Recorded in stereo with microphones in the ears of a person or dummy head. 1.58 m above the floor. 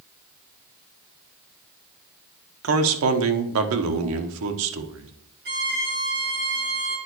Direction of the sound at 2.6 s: 80° right.